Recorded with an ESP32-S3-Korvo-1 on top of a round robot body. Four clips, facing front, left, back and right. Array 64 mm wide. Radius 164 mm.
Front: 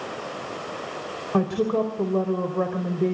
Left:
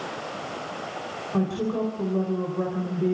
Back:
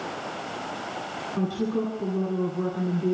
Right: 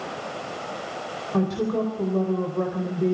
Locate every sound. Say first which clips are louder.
1.3 s a woman speaking: right 2 dB, front 5 dB; 10° right, 4 m